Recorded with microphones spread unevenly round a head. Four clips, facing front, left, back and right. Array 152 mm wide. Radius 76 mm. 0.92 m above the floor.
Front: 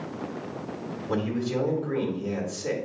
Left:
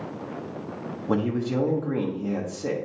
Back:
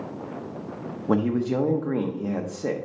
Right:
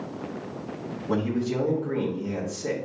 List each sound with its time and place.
1.1 s a man speaking: 160° left, 1.1 m